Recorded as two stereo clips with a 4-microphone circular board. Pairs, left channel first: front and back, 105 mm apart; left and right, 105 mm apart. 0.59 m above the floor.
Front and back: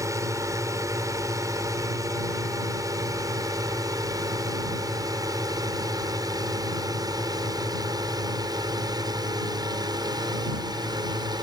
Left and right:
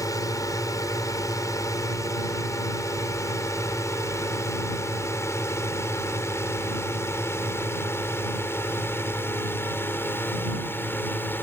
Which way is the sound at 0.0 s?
135° left.